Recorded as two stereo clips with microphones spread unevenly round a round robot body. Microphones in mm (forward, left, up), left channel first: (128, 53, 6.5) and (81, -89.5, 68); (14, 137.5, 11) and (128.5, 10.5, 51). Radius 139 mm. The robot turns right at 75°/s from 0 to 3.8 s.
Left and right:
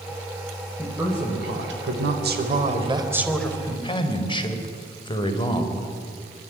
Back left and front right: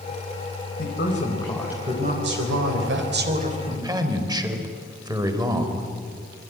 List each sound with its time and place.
0.8 s a woman speaking: 155° left, 4 m; by 5.9 s 25° left, 4 m